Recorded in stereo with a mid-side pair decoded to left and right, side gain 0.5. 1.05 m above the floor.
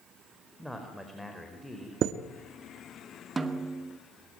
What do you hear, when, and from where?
0.6 s a man speaking: straight ahead, 4.5 m
2.0 s a chime: 55° right, 1.5 m
3.4 s a snare drum: 25° right, 2 m